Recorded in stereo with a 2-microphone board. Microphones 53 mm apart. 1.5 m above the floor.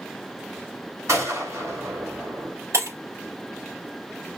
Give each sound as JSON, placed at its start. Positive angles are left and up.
{"t": 1.1, "sound": "a gunshot", "side_deg": -75, "distance_m": 4.0}
{"t": 2.7, "sound": "breaking glass", "side_deg": -65, "distance_m": 4.0}